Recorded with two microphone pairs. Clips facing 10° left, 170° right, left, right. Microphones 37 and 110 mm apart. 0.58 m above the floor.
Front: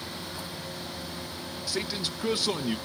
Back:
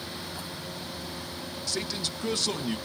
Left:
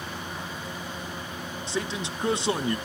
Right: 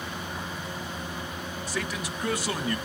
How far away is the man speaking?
About 0.6 m.